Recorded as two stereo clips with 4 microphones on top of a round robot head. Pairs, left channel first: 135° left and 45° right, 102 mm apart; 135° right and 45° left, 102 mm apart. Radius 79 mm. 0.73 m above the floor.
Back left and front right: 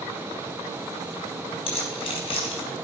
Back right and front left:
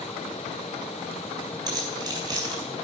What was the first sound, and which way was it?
Keys jangling, 100° left.